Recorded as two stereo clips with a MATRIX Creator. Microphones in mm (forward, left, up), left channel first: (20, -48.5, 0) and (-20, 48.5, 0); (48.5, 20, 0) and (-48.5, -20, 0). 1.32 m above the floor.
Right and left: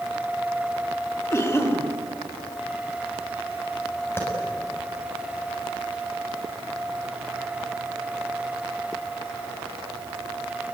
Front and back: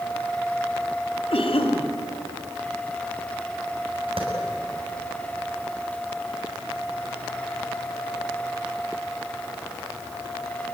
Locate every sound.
1.3 s a cough: 5° right, 3 m
4.2 s a clap: 135° right, 7 m